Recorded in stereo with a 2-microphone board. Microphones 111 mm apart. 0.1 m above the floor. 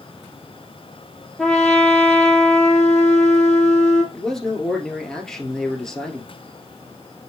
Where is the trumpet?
5° left (ahead or behind), 3 m.